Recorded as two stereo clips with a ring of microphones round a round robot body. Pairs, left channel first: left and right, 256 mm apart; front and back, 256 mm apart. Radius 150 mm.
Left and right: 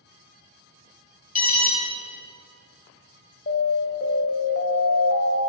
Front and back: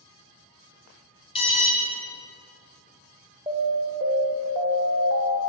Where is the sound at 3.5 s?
110° left, 1.2 m.